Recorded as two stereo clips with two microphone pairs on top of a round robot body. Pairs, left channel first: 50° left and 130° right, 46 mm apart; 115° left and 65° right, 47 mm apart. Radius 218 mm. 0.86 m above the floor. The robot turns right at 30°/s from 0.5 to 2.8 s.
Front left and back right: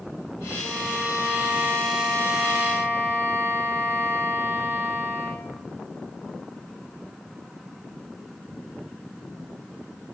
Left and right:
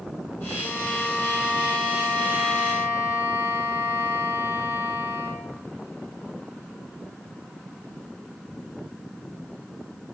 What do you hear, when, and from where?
0.6 s a violin: 155° right, 7 m; by 5.5 s 90° right, 7 m